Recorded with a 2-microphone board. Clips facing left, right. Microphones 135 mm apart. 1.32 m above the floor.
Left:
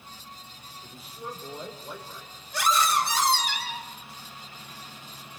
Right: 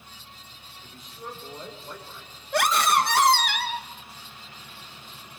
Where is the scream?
65° right (ahead or behind), 1.7 m.